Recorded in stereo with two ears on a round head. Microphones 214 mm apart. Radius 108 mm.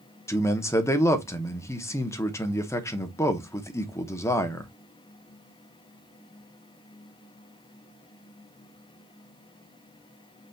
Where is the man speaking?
15° left (ahead or behind), 0.8 m.